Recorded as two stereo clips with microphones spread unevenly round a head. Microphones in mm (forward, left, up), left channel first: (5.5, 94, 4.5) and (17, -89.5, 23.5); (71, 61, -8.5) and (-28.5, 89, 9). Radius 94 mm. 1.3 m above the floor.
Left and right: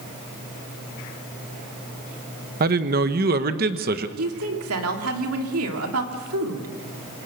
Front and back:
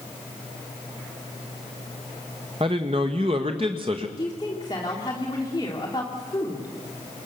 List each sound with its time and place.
2.6 s a man speaking: 130° right, 1.3 m
4.2 s a woman speaking: 85° right, 3 m